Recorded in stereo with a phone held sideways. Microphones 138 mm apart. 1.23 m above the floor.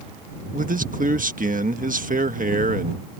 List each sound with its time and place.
0.5 s a man speaking: 75° right (ahead or behind)